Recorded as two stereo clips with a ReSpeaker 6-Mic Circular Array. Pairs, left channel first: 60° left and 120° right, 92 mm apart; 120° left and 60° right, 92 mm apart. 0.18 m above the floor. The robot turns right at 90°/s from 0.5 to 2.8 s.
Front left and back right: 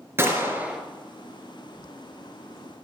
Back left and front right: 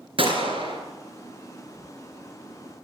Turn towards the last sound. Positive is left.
turn(degrees=150)